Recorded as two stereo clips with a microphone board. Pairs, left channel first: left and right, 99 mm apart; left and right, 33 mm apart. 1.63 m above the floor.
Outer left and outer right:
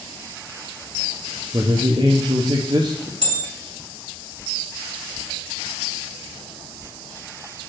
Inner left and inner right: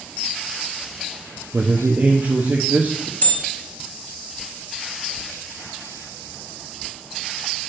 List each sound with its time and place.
1.5 s a man speaking: 45° right (ahead or behind), 0.8 m
3.2 s a bell: 55° left (ahead or behind), 3 m